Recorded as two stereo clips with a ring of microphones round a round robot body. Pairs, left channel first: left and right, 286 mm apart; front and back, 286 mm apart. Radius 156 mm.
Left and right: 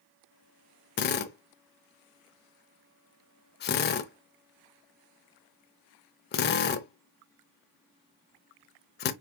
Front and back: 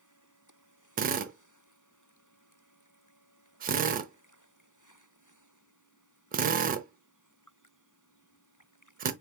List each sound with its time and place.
1.0 s a drill: 130° left, 0.6 m